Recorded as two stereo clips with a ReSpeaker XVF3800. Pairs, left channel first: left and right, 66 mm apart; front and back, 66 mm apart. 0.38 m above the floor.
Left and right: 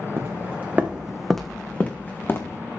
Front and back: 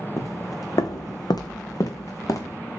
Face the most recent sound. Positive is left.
turn(degrees=40)